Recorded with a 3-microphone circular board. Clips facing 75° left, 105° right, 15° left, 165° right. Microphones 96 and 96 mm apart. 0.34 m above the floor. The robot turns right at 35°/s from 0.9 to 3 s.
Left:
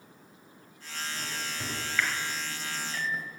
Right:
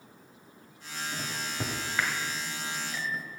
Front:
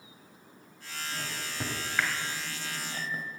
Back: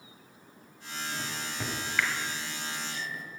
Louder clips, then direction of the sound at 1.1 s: Right 3 dB, even; 85° right.